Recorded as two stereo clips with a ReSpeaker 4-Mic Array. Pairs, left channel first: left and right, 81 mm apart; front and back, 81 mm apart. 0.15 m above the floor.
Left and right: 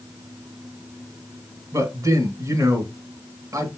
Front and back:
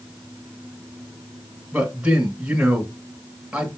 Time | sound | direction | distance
1.7 | a man speaking | 105° right | 2 m